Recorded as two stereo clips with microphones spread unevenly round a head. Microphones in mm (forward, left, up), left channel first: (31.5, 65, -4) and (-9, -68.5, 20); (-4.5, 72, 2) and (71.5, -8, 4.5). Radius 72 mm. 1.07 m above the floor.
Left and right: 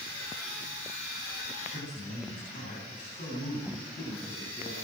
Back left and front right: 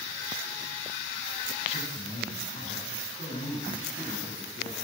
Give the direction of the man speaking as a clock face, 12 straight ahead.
8 o'clock.